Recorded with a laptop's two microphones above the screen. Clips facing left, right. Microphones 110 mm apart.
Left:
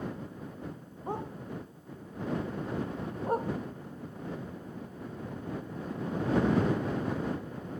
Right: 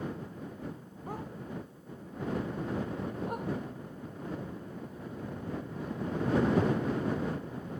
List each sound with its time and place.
1.1 s a dog barking: 25° left (ahead or behind); by 7.8 s 45° left (ahead or behind)